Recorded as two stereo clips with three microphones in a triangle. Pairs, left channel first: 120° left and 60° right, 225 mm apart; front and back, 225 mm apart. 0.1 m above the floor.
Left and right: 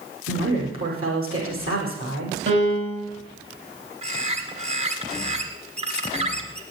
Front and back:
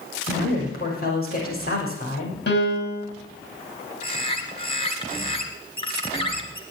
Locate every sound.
0.3 s a woman speaking: 45° right, 5.5 m
2.5 s a piano: 35° right, 4.5 m
4.0 s a bird: 40° right, 1.8 m